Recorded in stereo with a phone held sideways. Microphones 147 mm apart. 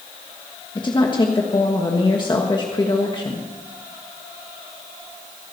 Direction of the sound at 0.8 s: 30° left (ahead or behind).